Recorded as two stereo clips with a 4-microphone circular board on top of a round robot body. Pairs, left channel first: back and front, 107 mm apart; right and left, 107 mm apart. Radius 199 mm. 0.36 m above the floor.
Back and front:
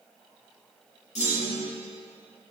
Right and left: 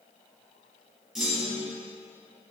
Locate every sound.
1.1 s a clunk: 175° left, 4.5 m